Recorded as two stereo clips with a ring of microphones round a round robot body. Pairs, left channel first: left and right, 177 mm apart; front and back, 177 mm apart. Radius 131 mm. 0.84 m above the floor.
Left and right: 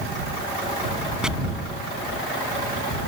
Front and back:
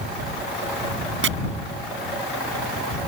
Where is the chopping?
175° right.